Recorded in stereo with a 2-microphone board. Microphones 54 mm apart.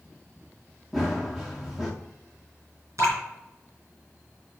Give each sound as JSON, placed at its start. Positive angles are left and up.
{"t": 0.9, "sound": "running footsteps", "side_deg": -5, "distance_m": 1.8}
{"t": 3.0, "sound": "dripping", "side_deg": -65, "distance_m": 3.5}